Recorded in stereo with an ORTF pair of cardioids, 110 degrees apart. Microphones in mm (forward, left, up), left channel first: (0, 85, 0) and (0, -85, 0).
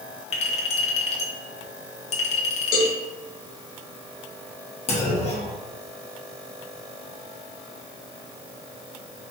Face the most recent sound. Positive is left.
turn(degrees=40)